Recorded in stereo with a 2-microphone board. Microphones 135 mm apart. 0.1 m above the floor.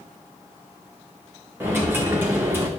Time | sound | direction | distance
1.6 | a dropped coin | 15° right (ahead or behind) | 1.7 m